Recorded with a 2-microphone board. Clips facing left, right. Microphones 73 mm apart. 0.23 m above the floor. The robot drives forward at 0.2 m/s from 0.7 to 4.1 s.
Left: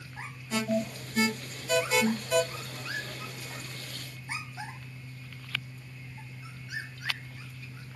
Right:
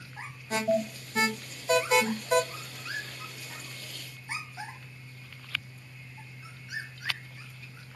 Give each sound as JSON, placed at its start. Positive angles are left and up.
{"t": 0.5, "sound": "an alarm", "side_deg": -50, "distance_m": 1.2}